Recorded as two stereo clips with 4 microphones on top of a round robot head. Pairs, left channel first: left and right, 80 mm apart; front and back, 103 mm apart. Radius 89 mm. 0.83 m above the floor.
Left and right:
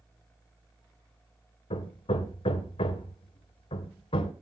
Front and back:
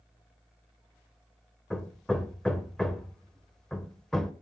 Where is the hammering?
85° left, 1.7 m.